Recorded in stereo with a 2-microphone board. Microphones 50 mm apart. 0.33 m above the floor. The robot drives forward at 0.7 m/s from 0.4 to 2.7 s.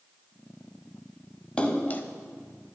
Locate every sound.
1.6 s a splash: 25° left (ahead or behind), 0.7 m; by 2.0 s 40° left (ahead or behind), 0.5 m